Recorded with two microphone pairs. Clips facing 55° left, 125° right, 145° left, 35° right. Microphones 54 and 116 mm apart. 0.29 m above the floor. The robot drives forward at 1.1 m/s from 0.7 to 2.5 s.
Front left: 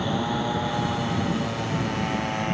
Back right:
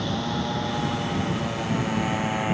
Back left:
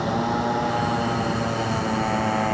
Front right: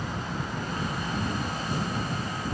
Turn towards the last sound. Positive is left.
turn(degrees=150)